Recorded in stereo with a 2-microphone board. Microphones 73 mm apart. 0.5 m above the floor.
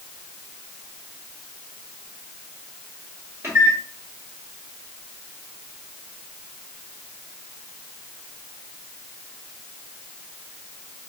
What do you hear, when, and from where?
3.4 s a microwave: 30° right (ahead or behind), 1.6 m